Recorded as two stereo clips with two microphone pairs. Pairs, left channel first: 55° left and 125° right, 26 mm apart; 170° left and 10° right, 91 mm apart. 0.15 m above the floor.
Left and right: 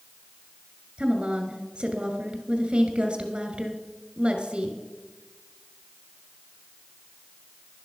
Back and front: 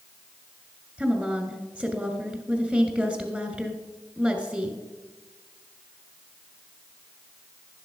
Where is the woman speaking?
85° right, 2 m.